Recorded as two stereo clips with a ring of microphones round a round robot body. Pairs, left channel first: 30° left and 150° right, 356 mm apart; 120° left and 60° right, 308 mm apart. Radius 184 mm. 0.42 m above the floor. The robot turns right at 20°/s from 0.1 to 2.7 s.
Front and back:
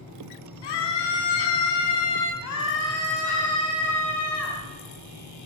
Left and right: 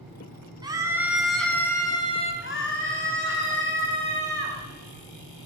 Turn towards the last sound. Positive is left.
turn(degrees=75)